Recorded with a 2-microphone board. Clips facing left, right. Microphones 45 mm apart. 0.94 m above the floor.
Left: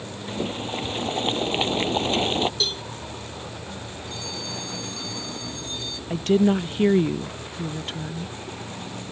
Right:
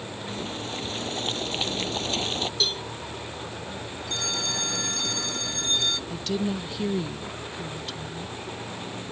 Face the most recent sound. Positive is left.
turn(degrees=40)  # may be behind; listen again after turning